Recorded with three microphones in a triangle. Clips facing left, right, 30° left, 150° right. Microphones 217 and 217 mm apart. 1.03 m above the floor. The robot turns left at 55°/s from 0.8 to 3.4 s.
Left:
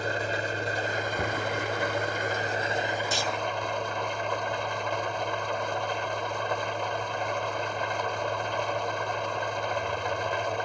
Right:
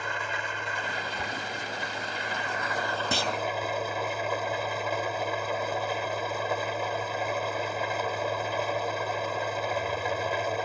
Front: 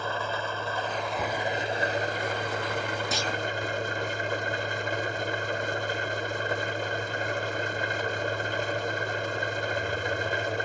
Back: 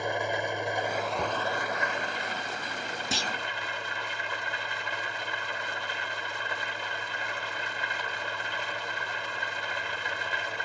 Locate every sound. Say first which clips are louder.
0.0 s an engine running: left 6 dB, back 2 dB; 135° left; by 10.6 s 5° right
1.1 s knocking: left 6 dB, front 1 dB; 135° left; by 1.5 s 120° left
3.1 s a clunk: right 1 dB, front 4 dB; 90° right; by 3.3 s 105° right